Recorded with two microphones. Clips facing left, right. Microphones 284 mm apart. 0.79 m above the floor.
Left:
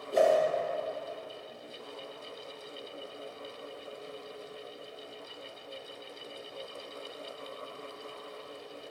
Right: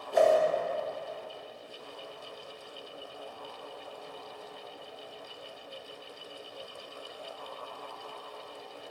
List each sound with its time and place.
0.1 s a whoosh: 35° left (ahead or behind), 5 m